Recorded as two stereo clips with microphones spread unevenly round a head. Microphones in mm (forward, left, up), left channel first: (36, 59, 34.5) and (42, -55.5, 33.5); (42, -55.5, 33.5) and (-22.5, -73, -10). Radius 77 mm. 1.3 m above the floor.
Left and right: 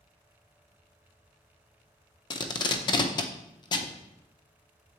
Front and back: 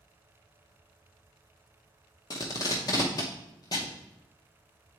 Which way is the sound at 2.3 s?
40° left.